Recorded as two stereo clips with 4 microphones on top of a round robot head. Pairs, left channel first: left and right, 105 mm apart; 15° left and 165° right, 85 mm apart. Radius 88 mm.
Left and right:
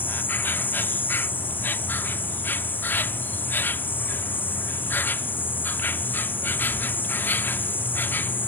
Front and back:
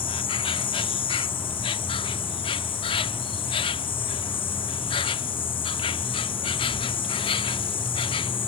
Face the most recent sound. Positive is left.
turn(degrees=20)